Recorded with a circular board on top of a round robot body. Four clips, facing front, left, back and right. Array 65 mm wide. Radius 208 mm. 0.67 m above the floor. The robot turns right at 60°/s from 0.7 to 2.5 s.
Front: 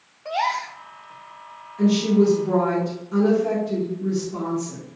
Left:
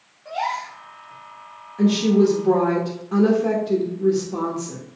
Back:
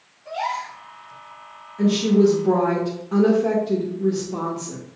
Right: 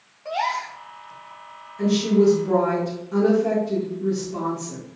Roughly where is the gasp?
Ahead right.